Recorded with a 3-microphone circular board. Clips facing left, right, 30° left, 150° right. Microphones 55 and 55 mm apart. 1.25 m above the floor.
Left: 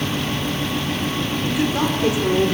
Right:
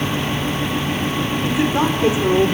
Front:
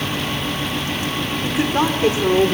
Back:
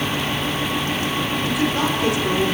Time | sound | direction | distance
1.4 | a woman speaking | 25° right | 4.5 m